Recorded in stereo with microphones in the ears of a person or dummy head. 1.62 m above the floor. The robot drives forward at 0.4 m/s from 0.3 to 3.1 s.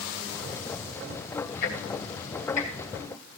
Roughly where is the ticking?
Left.